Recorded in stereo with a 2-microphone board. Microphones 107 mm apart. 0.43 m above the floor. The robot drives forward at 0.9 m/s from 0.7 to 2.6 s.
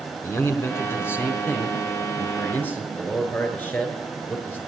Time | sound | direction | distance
0.2 | a man speaking | 20° left (ahead or behind) | 3.5 m